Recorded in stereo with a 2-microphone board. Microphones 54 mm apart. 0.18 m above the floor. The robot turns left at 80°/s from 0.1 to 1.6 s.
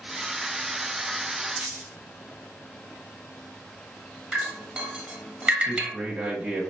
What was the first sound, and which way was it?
A dropped coin, 25° right (ahead or behind).